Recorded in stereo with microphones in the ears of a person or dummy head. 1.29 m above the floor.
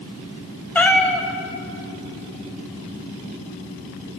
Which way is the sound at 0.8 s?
10° left (ahead or behind).